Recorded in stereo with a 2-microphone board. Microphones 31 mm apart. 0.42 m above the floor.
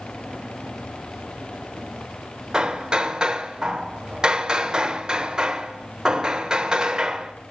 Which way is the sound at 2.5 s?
25° right (ahead or behind).